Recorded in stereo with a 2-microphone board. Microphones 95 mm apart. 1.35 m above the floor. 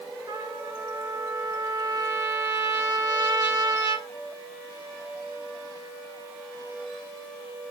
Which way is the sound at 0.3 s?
55° right (ahead or behind).